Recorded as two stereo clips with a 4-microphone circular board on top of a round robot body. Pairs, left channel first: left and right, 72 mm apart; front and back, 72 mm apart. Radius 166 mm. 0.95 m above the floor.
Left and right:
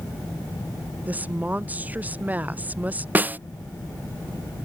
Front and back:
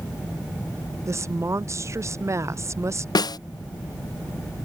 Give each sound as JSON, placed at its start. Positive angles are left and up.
{"t": 1.1, "sound": "a woman speaking", "azimuth_deg": -150}
{"t": 3.1, "sound": "a snare drum", "azimuth_deg": -25}